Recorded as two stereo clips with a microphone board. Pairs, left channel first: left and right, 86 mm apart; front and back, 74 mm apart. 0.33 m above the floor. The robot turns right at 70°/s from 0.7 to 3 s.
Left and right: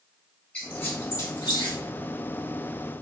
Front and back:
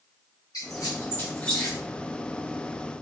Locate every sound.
0.5 s a squeak: 15° left, 1.8 m; by 1.8 s 90° left, 1.8 m